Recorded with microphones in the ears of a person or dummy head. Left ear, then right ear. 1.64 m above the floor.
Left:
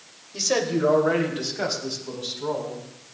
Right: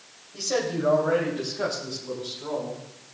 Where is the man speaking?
80° left, 3 m; by 2.8 s 85° left, 5 m.